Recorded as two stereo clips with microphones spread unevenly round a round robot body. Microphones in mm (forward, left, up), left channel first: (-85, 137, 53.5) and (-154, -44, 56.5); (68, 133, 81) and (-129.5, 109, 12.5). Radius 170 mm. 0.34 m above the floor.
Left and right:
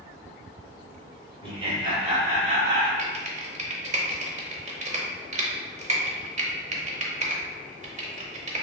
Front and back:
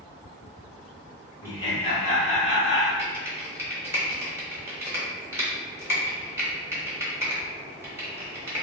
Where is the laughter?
105° right, 0.8 m; by 2.9 s 45° right, 1.7 m.